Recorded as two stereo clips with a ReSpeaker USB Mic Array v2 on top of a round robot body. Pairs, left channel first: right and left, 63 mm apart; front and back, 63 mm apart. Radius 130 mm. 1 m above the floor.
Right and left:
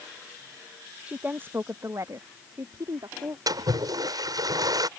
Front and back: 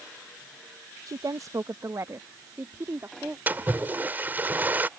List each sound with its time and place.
1.1 s a woman speaking: 160° left; by 3.4 s 120° left
3.5 s a splash: 115° left